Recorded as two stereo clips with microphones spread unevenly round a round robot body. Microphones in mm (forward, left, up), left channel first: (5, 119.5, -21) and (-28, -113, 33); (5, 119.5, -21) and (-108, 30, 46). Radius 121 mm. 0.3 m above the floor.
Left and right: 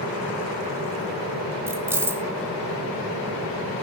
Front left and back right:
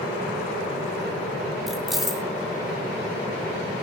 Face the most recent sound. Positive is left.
turn(degrees=0)